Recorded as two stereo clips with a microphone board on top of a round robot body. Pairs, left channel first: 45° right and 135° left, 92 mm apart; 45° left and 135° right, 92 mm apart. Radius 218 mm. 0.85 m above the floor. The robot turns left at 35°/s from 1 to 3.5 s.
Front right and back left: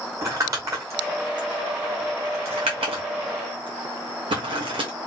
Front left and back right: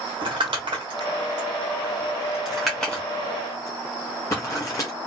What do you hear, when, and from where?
0.2 s crumpling: 170° right, 0.7 m; by 4.9 s 105° left, 0.7 m